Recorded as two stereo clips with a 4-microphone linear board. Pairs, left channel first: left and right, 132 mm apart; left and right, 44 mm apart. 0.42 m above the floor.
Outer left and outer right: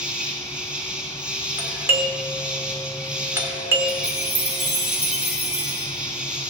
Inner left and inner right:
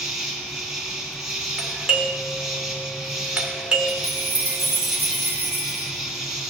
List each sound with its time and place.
0.0 s an insect: 5° right (ahead or behind), 2.5 m
1.6 s a doorbell: 20° right (ahead or behind), 1.5 m
3.9 s a chime: 50° left (ahead or behind), 3 m